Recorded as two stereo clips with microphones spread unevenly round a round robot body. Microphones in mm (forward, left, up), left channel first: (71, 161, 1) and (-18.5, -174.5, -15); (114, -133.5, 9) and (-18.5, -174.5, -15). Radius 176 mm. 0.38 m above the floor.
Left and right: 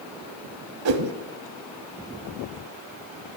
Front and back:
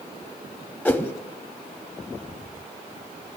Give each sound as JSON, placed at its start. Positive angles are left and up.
{"t": 0.8, "sound": "a whoosh", "azimuth_deg": -65, "distance_m": 0.9}